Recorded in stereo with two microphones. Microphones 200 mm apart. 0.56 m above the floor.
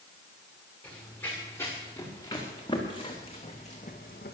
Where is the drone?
No drone in this recording.